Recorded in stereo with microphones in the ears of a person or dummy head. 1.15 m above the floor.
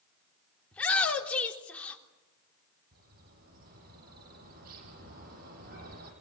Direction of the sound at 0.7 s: 15° left (ahead or behind).